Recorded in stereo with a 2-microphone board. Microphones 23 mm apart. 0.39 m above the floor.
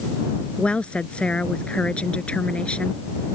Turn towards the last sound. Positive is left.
turn(degrees=55)  # may be behind; listen again after turning